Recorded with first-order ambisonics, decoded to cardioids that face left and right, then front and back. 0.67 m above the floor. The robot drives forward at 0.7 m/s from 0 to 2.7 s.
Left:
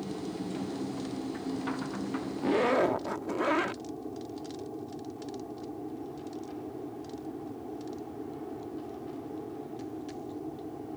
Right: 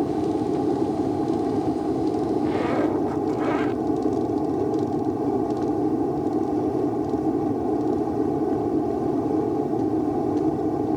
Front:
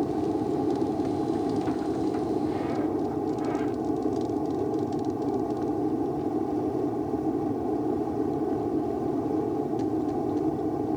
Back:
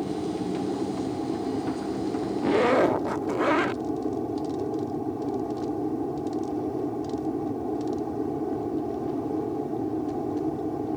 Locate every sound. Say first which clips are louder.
0.0 s an aircraft: right 14 dB, front 3 dB; 75° right; by 11.0 s 85° right
2.4 s a zipper: left 2 dB, back 7 dB; 170° left; by 3.8 s 175° left